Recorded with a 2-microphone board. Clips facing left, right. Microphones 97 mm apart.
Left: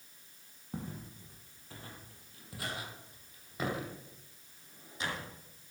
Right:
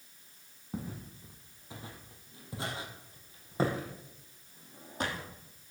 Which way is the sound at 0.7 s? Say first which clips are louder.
Right 2 dB; 5° right (ahead or behind).